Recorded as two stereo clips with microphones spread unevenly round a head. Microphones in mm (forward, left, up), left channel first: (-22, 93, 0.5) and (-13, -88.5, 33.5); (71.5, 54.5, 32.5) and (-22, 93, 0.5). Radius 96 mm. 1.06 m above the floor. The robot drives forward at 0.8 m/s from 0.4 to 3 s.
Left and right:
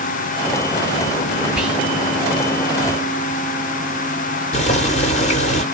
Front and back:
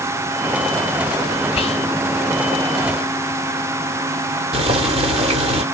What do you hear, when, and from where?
1.6 s whispering: 5° left, 1.2 m
4.5 s boiling: 145° left, 1.0 m